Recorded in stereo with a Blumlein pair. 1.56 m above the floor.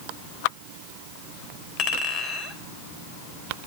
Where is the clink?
35° left, 3.5 m.